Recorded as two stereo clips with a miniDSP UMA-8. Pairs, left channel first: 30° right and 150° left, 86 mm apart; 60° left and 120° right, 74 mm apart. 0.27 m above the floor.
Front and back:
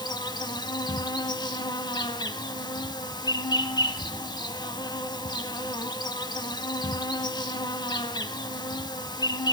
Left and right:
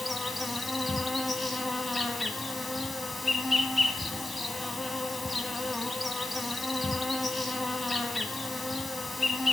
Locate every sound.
0.0 s an insect: 30° right, 1.1 m